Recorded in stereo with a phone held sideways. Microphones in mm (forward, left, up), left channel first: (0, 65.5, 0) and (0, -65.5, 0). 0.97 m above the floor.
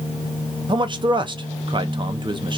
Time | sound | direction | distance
0.7 | a man speaking | 35° right (ahead or behind) | 0.6 m